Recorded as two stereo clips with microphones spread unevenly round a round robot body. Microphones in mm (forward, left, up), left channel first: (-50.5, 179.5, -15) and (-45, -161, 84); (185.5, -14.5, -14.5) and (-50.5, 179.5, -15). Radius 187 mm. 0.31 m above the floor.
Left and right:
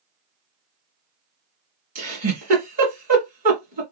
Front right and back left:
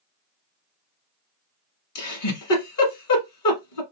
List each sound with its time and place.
1.9 s a giggle: 15° right, 1.6 m